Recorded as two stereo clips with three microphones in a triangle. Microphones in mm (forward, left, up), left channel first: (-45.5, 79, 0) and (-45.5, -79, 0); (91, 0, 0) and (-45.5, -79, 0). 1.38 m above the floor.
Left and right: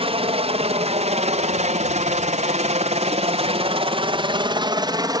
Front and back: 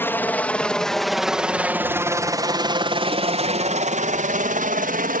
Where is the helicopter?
45° right; by 5.2 s 155° right.